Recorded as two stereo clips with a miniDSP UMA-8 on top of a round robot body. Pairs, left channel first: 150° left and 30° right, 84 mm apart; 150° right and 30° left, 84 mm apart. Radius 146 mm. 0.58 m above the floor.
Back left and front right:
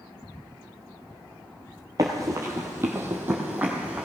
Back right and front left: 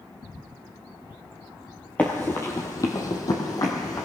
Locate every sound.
2.0 s running footsteps: 75° right, 0.6 m; by 4.1 s 100° right, 1.5 m